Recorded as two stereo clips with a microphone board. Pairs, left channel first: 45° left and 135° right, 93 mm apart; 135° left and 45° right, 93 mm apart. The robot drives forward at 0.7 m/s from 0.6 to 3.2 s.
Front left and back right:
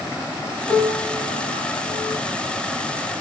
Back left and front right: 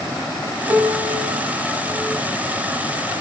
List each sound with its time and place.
0.7 s a piano: 20° left, 3 m; by 2.2 s 30° left, 2.5 m